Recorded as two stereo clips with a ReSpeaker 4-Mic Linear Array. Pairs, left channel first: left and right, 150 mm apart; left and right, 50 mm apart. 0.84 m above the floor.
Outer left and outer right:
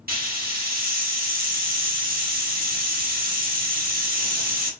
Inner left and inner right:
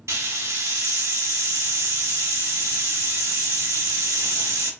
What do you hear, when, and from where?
0.1 s a hiss: 85° right, 0.9 m